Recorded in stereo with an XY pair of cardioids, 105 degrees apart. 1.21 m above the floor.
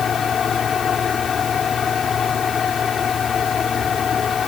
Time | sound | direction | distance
0.0 | a fan | 50° left | ?